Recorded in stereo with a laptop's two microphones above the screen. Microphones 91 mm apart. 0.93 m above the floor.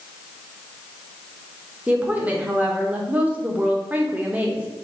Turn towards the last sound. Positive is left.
turn(degrees=-15)  # may be behind; listen again after turning